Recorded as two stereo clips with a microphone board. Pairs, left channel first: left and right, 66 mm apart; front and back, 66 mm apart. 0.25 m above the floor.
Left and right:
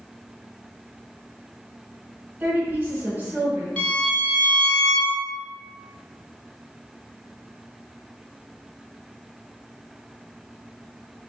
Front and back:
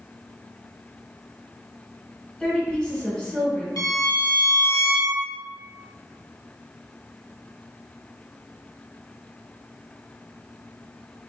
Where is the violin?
15° left, 1.5 m.